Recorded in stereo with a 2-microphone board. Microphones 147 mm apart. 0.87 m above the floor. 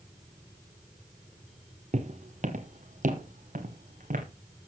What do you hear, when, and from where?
1.9 s footsteps: 50° right (ahead or behind), 1.3 m; by 4.2 s 60° right (ahead or behind), 2.5 m